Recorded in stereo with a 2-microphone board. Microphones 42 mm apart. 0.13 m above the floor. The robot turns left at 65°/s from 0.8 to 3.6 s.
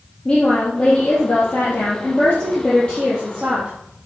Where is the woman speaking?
160° left, 4 m; by 3.7 s 25° right, 4 m.